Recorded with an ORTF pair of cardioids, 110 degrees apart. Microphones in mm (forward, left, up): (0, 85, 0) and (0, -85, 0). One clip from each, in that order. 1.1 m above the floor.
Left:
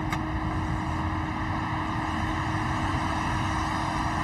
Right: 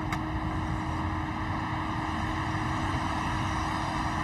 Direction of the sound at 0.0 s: 15° left.